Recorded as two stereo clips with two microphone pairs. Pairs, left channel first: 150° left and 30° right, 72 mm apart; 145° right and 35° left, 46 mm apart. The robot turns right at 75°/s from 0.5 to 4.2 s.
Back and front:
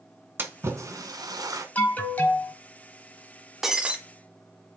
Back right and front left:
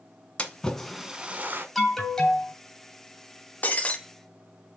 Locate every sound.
0.4 s a splash: 85° right, 1.1 m; by 1.6 s straight ahead, 1.1 m
1.8 s an alarm: 130° left, 1.5 m; by 2.5 s 170° right, 1.5 m
3.6 s breaking glass: 115° right, 1.0 m; by 4.0 s 90° right, 1.0 m